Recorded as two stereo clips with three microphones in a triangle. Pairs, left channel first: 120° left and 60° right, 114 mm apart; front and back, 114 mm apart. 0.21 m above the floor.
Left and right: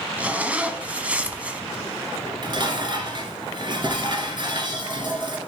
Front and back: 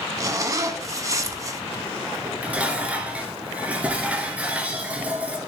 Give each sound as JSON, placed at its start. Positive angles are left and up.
{"t": 0.2, "sound": "a zipper", "azimuth_deg": -135, "distance_m": 0.8}
{"t": 2.1, "sound": "dishes clattering", "azimuth_deg": -105, "distance_m": 1.7}